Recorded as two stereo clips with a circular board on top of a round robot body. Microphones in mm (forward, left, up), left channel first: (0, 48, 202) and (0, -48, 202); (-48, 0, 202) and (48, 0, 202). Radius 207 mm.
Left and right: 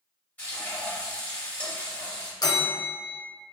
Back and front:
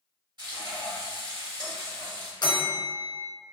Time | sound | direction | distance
0.4 | frying | 20° left | 1.6 m
2.4 | a bell | 135° left | 0.7 m